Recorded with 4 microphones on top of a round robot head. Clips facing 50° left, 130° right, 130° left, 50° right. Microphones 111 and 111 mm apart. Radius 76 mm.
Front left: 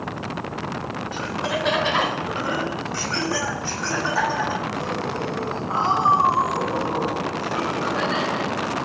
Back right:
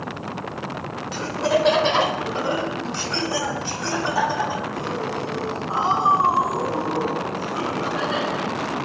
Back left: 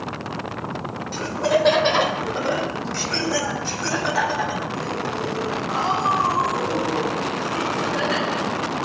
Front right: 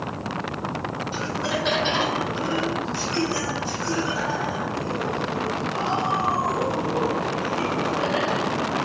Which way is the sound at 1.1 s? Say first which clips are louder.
Back right 7 dB, back left 9 dB; straight behind.